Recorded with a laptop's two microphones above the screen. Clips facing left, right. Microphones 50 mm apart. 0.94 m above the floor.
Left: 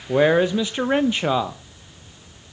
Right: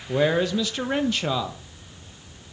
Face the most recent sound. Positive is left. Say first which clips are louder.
# left 5 dB
turn(degrees=25)  # may be behind; listen again after turning